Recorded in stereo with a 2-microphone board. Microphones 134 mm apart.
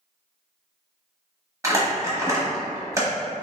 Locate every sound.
1.6 s crumpling: 25° right (ahead or behind), 1.0 m